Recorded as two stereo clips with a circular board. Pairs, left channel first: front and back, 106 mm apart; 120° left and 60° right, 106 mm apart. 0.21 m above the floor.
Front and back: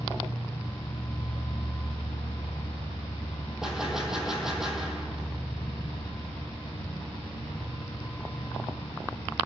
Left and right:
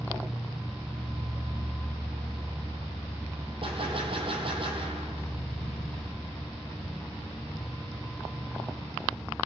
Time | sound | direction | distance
0.0 | an insect | 35° left | 3.5 m
3.6 | a gunshot | 95° right | 2.5 m